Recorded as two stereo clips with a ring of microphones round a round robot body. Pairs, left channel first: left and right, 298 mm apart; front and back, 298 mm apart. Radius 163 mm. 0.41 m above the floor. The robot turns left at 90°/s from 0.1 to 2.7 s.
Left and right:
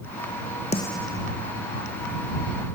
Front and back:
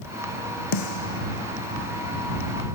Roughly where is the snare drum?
Ahead.